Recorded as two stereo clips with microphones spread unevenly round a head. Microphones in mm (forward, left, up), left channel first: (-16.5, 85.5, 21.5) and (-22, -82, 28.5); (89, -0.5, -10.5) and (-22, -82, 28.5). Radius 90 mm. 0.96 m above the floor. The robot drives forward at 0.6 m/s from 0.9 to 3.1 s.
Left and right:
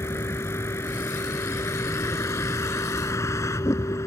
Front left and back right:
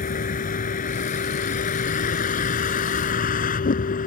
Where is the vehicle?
10° left; by 4.1 s 15° left.